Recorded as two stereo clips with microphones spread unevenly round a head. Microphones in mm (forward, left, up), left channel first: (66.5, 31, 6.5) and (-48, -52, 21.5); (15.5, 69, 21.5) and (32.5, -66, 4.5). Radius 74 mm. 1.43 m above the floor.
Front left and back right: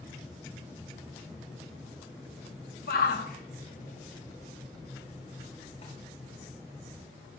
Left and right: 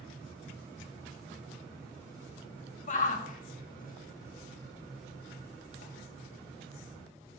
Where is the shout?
60° left, 2 m; by 5.9 s 90° left, 4 m.